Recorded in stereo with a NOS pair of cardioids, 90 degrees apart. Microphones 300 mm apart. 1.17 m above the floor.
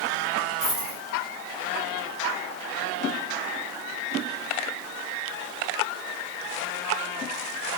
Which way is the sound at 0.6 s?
35° right.